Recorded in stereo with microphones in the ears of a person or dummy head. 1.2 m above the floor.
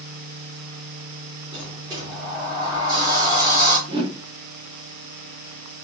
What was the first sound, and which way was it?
A sliding door, 25° right (ahead or behind).